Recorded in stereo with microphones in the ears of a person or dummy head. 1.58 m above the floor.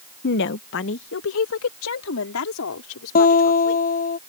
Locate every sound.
0.2 s a woman speaking: 55° left (ahead or behind); by 3.8 s 75° left (ahead or behind)
3.1 s a guitar: 45° left (ahead or behind)